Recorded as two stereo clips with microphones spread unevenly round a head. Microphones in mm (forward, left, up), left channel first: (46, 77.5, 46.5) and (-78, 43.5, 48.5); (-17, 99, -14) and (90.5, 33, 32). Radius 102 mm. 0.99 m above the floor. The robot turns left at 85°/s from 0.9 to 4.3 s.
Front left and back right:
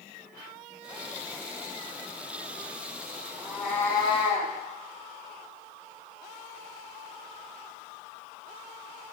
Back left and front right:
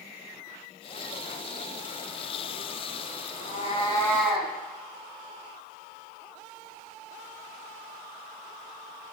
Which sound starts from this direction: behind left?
A cat meowing, at 3.4 s.